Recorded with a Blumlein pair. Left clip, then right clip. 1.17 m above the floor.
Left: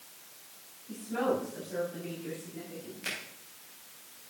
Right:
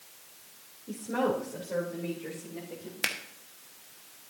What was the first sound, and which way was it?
A woman speaking, 45° right.